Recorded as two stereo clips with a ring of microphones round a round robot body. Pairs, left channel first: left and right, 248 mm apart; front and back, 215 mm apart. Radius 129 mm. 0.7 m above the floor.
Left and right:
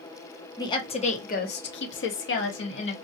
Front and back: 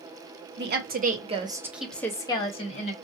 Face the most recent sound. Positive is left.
turn(degrees=50)